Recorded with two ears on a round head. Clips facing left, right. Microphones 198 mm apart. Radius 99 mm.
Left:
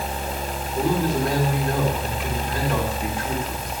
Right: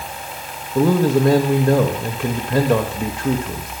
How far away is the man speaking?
About 1.8 m.